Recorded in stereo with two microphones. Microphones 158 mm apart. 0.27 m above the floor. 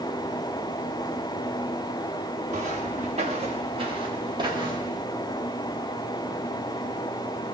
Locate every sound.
2.5 s footsteps: 50° right (ahead or behind), 2 m; by 5.0 s 25° right (ahead or behind), 2.5 m